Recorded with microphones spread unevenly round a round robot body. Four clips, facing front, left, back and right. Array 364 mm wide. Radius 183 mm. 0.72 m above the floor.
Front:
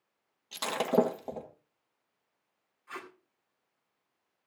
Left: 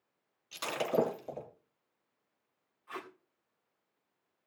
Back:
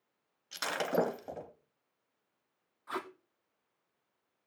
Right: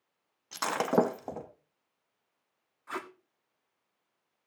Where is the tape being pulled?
125° right, 1.5 m.